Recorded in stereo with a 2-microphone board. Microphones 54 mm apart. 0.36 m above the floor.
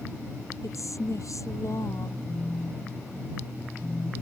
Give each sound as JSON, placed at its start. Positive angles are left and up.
{"t": 0.6, "sound": "a woman speaking", "side_deg": 70}
{"t": 2.3, "sound": "a phone buzzing", "side_deg": 75}